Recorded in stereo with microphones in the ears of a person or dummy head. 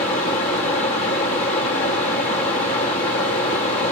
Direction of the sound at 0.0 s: 30° left (ahead or behind).